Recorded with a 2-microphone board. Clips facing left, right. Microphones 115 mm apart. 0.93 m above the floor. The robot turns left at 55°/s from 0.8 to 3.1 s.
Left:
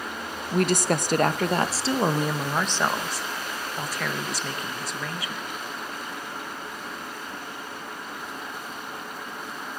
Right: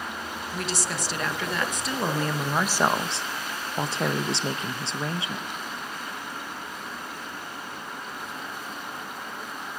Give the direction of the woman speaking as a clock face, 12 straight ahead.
9 o'clock.